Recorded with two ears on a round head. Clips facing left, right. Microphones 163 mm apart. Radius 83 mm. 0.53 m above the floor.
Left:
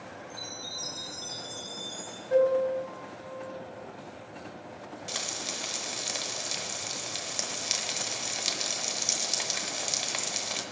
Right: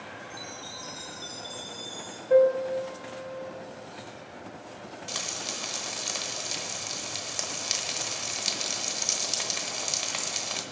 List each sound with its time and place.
0.3 s a chime: 25° left (ahead or behind), 4 m
2.3 s a piano: 55° right (ahead or behind), 2 m
5.1 s frying: 5° left (ahead or behind), 1.0 m